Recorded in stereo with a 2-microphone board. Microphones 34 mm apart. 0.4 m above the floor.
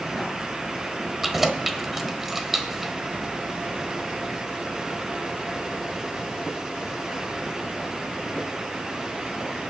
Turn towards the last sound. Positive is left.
turn(degrees=-5)  # may be behind; listen again after turning